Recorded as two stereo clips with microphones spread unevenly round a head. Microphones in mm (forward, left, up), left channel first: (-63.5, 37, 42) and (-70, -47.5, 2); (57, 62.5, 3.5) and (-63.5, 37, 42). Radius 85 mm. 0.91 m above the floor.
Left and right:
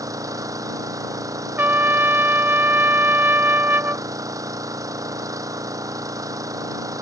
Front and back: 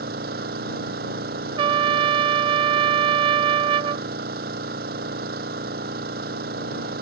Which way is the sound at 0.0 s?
145° right.